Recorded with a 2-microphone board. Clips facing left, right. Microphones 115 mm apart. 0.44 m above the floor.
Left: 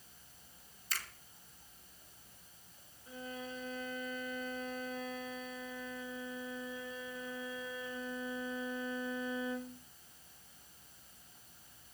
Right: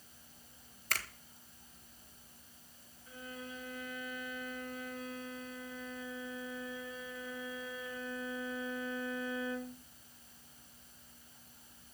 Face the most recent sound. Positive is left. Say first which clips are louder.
# left 2 dB
turn(degrees=25)  # may be behind; listen again after turning